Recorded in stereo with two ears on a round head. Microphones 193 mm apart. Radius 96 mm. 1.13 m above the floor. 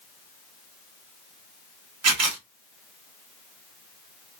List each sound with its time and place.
2.0 s a camera shutter: 75° right (ahead or behind), 1.4 m